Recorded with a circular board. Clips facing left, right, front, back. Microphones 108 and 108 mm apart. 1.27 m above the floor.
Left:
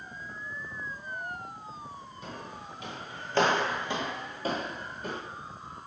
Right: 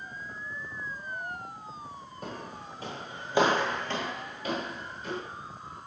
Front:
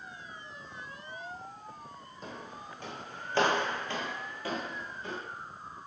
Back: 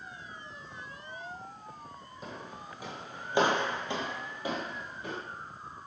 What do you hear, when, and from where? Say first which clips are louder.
2.2 s footsteps: right 3 dB, even; 95° right, 2.0 m; by 5.2 s 110° left, 2 m